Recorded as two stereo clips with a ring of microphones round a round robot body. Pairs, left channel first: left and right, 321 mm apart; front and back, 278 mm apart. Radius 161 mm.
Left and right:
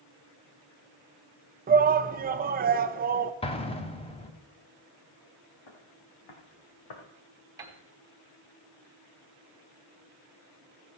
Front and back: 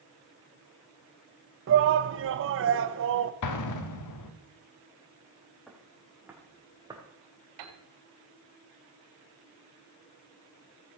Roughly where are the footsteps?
Left.